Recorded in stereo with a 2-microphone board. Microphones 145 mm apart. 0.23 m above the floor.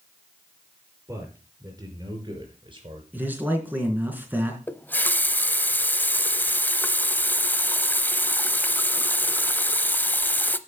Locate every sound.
1.1 s a man speaking: 20° right (ahead or behind), 4 m; by 3.0 s 40° right (ahead or behind), 4 m
3.1 s a man speaking: 15° right (ahead or behind), 3 m
4.7 s a running tap: 15° left (ahead or behind), 0.7 m